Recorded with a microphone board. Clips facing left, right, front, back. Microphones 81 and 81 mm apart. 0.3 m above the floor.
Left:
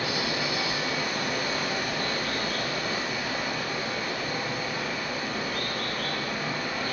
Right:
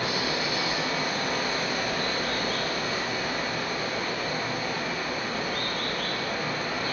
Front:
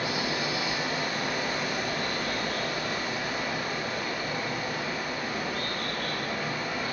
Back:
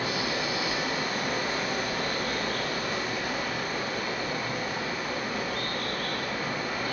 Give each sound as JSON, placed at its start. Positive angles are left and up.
{"t": 0.0, "sound": "running water", "azimuth_deg": -140, "distance_m": 1.6}